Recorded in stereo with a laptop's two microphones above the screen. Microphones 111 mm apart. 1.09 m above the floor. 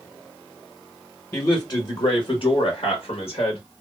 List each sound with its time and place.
1.3 s a man speaking: 35° left (ahead or behind), 1.1 m; by 3.6 s 70° left (ahead or behind), 1.3 m